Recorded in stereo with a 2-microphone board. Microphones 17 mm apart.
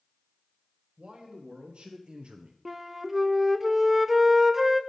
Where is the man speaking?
80° right, 1.9 m; by 2.5 s 60° right (ahead or behind), 0.8 m.